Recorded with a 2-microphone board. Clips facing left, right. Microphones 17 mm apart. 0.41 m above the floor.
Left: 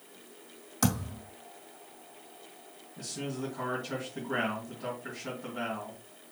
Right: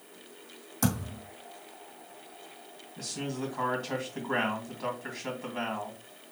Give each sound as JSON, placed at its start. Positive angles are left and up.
{"t": 0.8, "sound": "a thud", "side_deg": 20, "distance_m": 3.0}
{"t": 3.0, "sound": "a man speaking", "side_deg": -55, "distance_m": 2.5}